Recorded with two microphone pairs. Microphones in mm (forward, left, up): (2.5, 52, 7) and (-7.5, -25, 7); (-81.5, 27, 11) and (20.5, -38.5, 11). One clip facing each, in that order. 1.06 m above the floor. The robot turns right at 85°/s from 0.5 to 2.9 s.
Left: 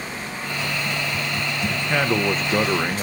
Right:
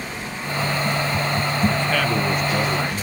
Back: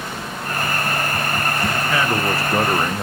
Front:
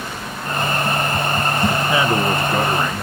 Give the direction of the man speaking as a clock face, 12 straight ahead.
12 o'clock.